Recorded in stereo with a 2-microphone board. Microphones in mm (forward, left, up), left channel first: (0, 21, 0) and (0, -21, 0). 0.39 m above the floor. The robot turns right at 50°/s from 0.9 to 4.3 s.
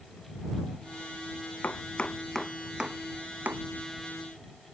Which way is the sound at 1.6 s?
45° left (ahead or behind).